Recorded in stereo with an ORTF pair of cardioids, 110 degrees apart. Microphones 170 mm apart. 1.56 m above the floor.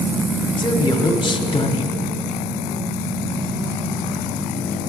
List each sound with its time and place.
0.6 s a man speaking: 25° left, 1.2 m